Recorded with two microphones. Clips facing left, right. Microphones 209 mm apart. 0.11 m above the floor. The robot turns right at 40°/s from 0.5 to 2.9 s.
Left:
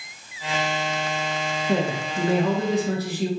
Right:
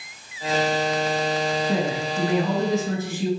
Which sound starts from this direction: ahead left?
A man speaking, at 1.7 s.